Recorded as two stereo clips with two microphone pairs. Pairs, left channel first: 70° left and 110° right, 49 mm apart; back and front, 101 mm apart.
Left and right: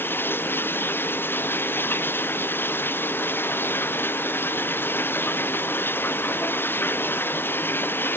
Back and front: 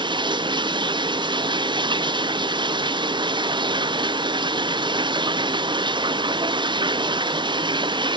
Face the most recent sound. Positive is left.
turn(degrees=30)